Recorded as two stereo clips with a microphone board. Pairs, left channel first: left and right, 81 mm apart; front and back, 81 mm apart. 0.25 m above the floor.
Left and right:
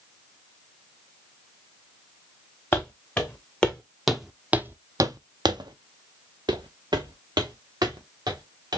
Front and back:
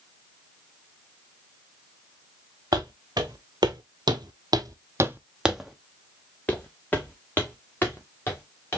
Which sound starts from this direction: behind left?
Footsteps, at 2.7 s.